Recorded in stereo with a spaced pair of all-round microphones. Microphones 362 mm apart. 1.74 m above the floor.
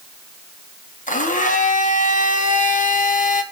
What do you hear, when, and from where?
1.1 s a blender: 20° left (ahead or behind), 1.4 m